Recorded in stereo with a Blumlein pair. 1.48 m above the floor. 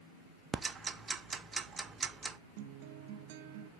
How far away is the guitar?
About 0.7 m.